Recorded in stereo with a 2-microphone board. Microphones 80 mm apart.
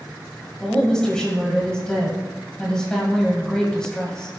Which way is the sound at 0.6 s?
10° left (ahead or behind).